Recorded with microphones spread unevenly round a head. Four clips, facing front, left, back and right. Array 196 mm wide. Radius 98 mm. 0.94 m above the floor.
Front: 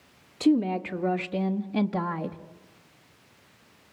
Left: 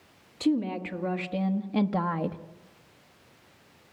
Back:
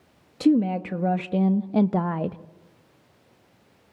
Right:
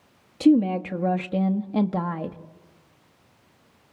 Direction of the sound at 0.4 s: 145° right.